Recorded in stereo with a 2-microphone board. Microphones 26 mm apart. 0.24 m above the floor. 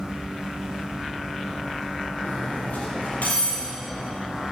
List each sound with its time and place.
2.2 s cutlery clinking: 80° left, 4 m